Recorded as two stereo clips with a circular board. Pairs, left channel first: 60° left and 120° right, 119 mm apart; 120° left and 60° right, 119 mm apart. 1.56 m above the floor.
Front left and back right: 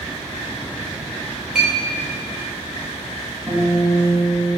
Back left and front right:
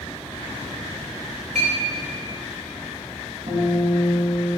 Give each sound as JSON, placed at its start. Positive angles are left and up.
{"t": 1.6, "sound": "a clink", "azimuth_deg": -35, "distance_m": 2.5}
{"t": 3.5, "sound": "a guitar", "azimuth_deg": -45, "distance_m": 2.5}